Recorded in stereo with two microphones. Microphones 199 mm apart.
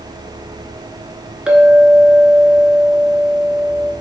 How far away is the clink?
About 0.8 m.